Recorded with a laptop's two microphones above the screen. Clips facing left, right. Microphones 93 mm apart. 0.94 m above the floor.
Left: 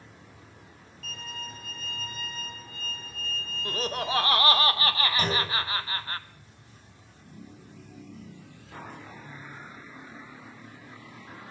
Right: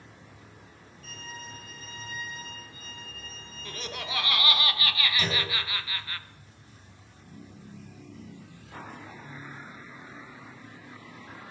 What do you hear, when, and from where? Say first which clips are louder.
1.0 s a violin: left 2 dB; 90° left, 5 m
3.6 s laughter: left 7 dB; 35° left (ahead or behind), 0.7 m
5.2 s a clunk: left 3 dB; 40° left (ahead or behind), 3.5 m